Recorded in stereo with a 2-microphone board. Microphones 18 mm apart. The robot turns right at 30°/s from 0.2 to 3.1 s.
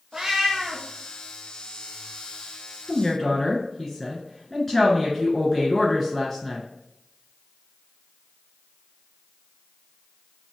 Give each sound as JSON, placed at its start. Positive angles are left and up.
{"t": 0.1, "sound": "a cat meowing", "side_deg": -30, "distance_m": 0.8}
{"t": 2.9, "sound": "a woman speaking", "side_deg": 10, "distance_m": 1.9}